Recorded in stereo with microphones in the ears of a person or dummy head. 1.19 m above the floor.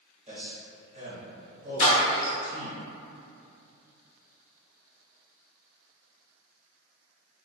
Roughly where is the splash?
Left.